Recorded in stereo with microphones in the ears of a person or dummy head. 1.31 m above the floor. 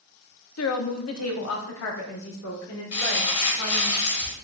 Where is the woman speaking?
70° left (ahead or behind), 0.5 m; by 3.9 s 80° left, 2 m.